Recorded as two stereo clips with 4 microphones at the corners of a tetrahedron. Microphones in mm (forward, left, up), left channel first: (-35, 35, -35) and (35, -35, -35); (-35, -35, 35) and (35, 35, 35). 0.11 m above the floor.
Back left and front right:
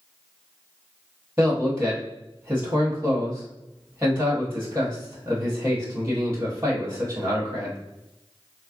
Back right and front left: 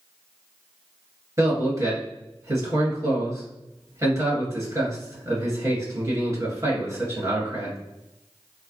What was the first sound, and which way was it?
A man speaking, 10° left.